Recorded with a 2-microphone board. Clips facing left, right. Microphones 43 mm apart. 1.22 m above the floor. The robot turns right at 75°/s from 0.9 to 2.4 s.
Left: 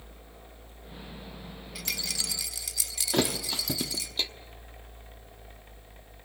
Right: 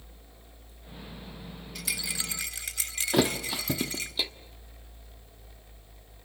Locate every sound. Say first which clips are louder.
1.8 s a rattle: right 1 dB; 170° left, 1.8 m; by 4.1 s 140° right, 1.8 m
3.1 s a thud: right 2 dB; 5° right (ahead or behind), 1.3 m